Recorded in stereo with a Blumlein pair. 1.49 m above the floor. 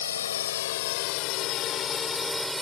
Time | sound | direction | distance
0.0 | a drone | 65° left | ?